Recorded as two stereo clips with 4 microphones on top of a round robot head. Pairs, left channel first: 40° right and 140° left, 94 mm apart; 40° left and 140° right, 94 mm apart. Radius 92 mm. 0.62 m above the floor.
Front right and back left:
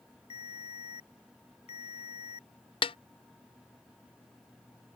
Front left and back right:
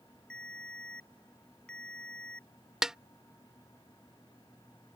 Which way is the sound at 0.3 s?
40° right.